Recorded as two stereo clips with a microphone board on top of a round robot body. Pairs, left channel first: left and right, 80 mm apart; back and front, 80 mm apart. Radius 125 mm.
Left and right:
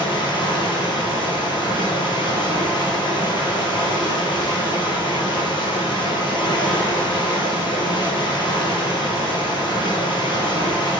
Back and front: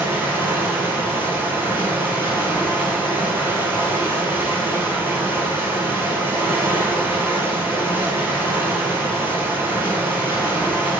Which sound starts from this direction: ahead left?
Running water, at 0.0 s.